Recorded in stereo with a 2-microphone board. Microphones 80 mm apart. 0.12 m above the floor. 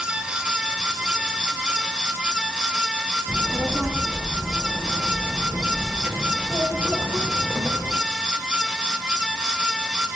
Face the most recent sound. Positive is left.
turn(degrees=-35)  # may be behind; listen again after turning